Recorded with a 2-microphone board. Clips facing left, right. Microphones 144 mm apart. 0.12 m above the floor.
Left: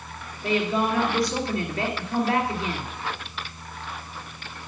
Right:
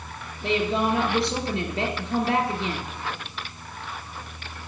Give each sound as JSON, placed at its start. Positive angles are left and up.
{"t": 0.4, "sound": "a woman speaking", "side_deg": -30, "distance_m": 2.5}